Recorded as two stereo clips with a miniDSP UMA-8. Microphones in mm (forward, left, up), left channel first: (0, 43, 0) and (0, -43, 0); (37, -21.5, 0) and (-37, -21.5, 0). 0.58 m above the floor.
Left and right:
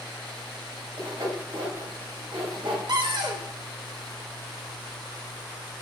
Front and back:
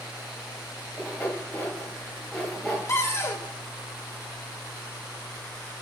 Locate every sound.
1.0 s sawing: 80° right, 2.5 m
2.9 s a cupboard door: 55° right, 0.7 m